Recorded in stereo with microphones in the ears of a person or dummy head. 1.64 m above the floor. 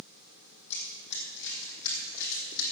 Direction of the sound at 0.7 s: 35° left (ahead or behind).